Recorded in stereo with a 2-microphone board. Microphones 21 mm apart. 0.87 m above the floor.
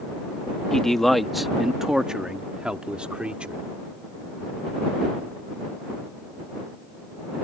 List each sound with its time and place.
0.7 s a man speaking: 20° left (ahead or behind); by 3.6 s 65° right (ahead or behind)